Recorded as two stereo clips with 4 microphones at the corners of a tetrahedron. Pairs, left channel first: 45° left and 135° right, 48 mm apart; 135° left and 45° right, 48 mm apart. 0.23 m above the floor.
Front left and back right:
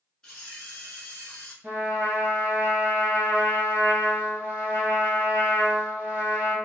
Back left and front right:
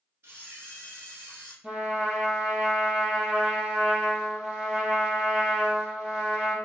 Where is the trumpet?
110° right, 1.4 m.